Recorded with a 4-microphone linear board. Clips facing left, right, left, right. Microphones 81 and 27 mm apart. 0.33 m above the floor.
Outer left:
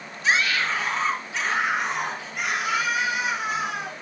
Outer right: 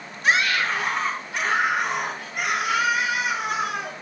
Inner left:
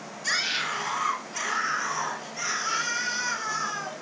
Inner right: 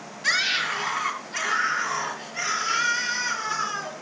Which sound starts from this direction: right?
A scream, at 0.2 s.